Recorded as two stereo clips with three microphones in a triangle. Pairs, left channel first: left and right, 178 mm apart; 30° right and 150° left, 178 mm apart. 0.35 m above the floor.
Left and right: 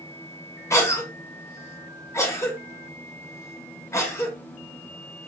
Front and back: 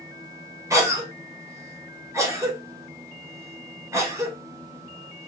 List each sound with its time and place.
0.7 s a cough: 120° left, 0.8 m